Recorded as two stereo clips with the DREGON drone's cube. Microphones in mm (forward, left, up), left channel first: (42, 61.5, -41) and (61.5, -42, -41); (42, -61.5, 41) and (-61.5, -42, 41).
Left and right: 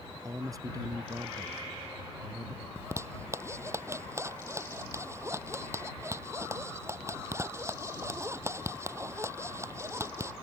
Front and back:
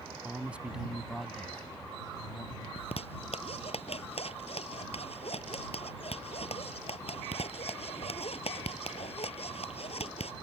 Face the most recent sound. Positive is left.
turn(degrees=-15)